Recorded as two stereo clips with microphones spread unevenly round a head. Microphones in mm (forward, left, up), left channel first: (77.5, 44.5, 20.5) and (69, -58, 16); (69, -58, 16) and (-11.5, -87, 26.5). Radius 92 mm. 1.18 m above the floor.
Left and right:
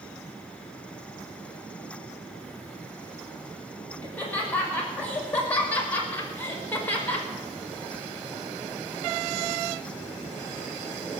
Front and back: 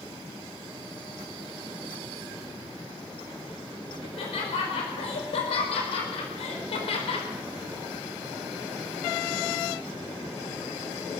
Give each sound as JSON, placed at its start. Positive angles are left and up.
{"t": 4.0, "sound": "laughter", "azimuth_deg": 10, "distance_m": 6.5}